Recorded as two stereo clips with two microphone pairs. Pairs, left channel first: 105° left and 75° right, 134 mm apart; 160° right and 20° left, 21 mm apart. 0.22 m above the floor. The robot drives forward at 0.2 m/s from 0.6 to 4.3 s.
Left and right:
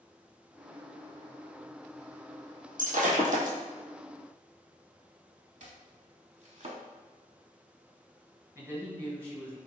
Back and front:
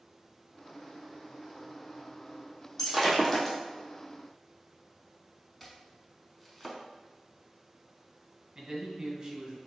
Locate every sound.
2.8 s breaking glass: 80° right, 1.3 m; by 3.6 s 85° right, 1.3 m
5.6 s chopping: 80° right, 0.7 m
8.6 s a man speaking: 25° right, 1.6 m